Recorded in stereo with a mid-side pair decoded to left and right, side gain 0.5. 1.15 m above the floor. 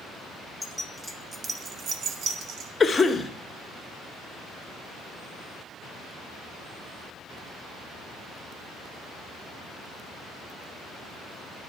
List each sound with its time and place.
0.6 s keys jangling: 15° left, 0.9 m; by 2.7 s 75° right, 0.8 m
2.8 s a cough: 25° left, 1.0 m